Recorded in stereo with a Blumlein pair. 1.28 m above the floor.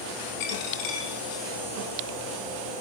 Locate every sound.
0.4 s a dropped coin: 50° left, 4 m